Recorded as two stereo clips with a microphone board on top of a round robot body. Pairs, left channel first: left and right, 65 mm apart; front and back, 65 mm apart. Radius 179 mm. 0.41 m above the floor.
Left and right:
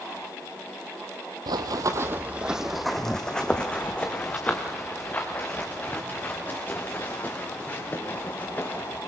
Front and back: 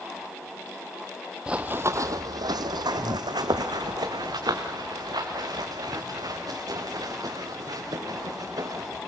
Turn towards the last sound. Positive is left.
turn(degrees=150)